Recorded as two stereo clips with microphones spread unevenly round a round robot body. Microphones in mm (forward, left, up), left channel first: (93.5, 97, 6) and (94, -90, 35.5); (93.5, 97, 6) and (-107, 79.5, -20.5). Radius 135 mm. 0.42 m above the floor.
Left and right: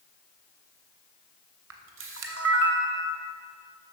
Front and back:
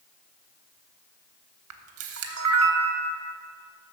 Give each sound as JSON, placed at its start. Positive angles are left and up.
{"t": 1.7, "sound": "a camera shutter", "azimuth_deg": -135, "distance_m": 0.5}